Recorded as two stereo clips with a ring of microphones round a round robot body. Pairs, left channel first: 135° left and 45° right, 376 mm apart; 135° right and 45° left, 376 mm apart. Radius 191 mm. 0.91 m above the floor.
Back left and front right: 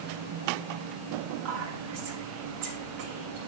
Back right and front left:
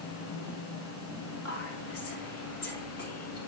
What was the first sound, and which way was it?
Whispering, 80° right.